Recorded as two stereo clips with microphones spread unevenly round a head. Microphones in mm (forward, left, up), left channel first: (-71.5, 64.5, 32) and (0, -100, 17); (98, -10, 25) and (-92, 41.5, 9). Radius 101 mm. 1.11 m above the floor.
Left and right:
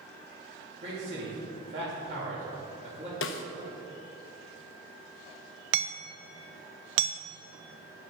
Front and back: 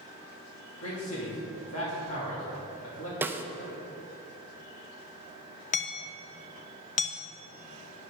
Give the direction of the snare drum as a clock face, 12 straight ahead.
9 o'clock.